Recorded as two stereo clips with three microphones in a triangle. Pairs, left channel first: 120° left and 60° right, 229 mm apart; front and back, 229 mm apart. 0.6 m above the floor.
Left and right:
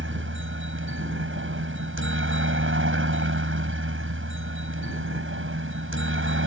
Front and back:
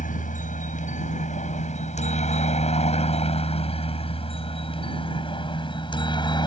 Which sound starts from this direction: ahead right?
A helicopter, at 0.0 s.